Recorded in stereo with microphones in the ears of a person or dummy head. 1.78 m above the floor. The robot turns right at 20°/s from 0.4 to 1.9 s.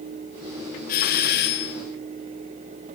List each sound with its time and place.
0.9 s a doorbell: 45° left (ahead or behind), 1.5 m; by 1.8 s 60° left (ahead or behind), 1.5 m